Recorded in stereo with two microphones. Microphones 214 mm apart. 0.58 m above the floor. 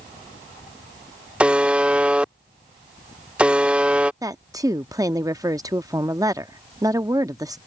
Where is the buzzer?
5° right (ahead or behind).